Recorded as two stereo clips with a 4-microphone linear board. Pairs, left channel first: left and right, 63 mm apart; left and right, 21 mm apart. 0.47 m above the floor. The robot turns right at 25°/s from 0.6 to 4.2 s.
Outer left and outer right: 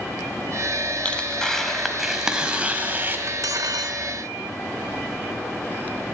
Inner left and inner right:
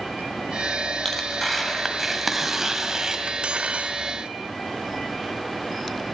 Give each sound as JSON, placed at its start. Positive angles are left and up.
{"t": 1.1, "sound": "tearing paper", "azimuth_deg": 160, "distance_m": 1.6}
{"t": 3.3, "sound": "cutlery clinking", "side_deg": -55, "distance_m": 0.9}